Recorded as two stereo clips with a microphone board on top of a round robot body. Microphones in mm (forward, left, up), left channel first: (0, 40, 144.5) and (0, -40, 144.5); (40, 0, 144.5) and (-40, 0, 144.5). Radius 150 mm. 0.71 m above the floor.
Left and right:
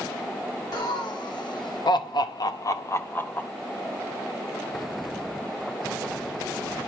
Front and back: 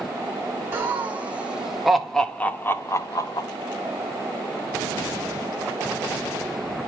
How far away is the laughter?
About 1.7 m.